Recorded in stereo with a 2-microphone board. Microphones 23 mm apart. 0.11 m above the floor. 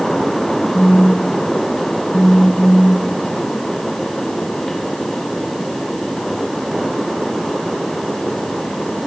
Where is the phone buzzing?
30° left (ahead or behind).